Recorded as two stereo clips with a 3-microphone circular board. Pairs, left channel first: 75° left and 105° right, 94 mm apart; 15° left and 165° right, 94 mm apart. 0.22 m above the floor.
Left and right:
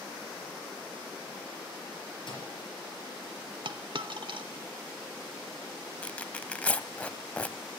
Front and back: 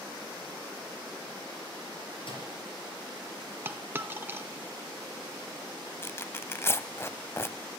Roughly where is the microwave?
Ahead left.